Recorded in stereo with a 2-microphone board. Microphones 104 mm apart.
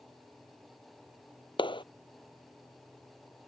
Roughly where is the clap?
Left.